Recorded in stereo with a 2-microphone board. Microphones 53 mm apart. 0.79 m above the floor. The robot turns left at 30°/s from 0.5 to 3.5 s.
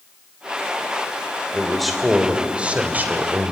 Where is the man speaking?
10° left, 2.5 m; by 3.5 s 50° right, 2.5 m.